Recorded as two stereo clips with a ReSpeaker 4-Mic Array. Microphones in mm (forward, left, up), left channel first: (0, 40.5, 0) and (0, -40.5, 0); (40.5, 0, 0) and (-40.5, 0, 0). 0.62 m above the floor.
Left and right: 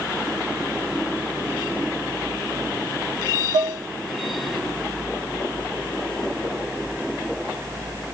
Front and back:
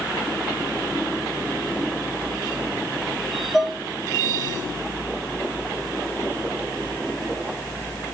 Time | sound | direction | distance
3.5 | dishes clattering | 95° right | 3 m